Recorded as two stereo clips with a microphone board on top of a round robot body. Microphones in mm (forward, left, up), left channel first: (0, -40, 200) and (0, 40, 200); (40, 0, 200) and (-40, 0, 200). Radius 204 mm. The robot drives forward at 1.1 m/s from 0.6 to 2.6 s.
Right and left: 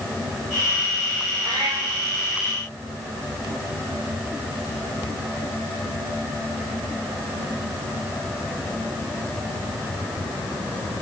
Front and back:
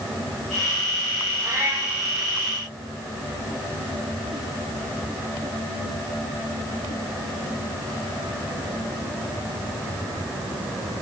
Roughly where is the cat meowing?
Behind left.